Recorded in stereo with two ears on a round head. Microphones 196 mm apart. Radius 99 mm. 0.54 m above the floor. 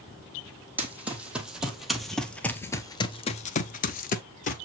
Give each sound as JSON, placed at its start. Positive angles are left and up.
{"t": 0.8, "sound": "running footsteps", "side_deg": -10, "distance_m": 1.6}